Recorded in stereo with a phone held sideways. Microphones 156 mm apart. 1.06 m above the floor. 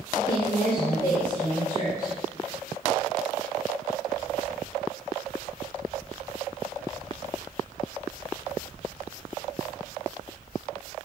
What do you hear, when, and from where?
0.1 s a woman speaking: 40° left (ahead or behind), 3 m; by 2.1 s 25° left (ahead or behind), 4.5 m